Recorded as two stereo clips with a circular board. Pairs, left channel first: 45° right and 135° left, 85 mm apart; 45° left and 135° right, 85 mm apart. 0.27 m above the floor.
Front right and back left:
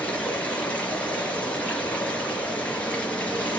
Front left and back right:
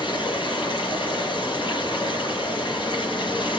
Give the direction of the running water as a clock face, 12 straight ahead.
11 o'clock.